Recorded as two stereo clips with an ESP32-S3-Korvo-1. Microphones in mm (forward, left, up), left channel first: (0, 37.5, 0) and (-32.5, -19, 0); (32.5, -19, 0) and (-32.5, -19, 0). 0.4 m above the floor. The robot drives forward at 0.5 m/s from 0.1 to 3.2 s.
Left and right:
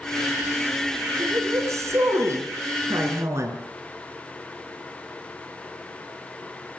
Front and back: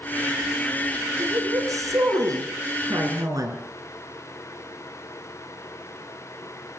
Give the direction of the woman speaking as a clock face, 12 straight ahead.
5 o'clock.